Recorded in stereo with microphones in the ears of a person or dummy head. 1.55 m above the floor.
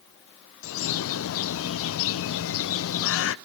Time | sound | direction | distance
0.6 | a bird | 70° left (ahead or behind) | 0.5 m